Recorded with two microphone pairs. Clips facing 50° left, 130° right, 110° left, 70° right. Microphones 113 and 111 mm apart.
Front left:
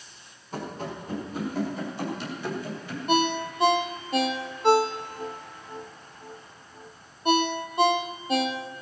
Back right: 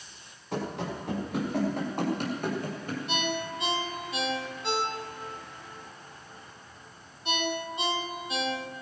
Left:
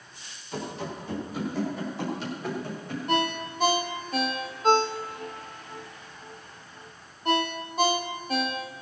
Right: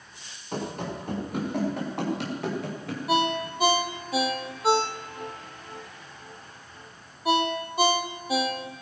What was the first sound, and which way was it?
Running footsteps, 115° right.